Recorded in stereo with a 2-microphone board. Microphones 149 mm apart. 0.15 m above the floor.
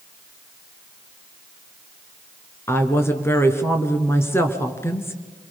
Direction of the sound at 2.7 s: 15° left (ahead or behind).